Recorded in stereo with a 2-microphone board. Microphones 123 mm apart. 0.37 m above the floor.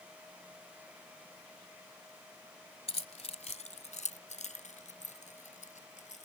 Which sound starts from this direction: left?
Keys jangling, at 2.9 s.